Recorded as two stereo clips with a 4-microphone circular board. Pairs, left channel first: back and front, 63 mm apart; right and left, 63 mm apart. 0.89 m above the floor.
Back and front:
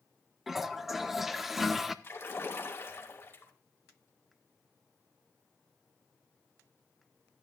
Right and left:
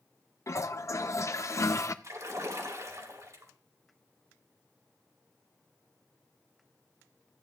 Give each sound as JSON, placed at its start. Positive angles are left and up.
{"t": 0.5, "sound": "a toilet flushing", "azimuth_deg": -85, "distance_m": 0.7}
{"t": 2.0, "sound": "a splash", "azimuth_deg": 125, "distance_m": 2.5}